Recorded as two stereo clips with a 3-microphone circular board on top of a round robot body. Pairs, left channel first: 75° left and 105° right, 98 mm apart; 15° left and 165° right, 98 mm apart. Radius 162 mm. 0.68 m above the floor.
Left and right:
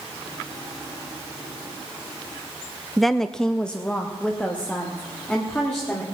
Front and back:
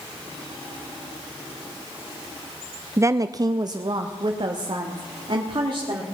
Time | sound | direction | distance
3.0 | a woman speaking | 165° left | 0.5 m